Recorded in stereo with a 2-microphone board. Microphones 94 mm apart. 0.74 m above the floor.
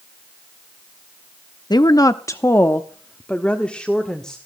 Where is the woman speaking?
45° left (ahead or behind), 0.6 m; by 4.4 s 5° left (ahead or behind), 1.7 m.